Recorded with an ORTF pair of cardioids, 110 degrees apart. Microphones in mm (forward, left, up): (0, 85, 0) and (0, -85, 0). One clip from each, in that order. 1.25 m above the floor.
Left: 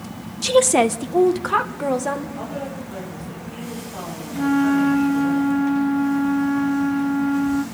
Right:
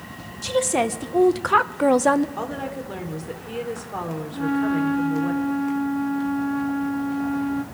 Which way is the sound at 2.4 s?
60° right.